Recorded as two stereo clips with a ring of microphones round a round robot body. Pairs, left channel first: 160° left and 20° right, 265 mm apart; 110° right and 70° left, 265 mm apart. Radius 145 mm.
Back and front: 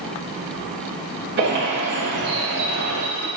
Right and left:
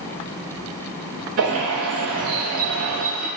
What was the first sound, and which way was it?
A bird, 30° left.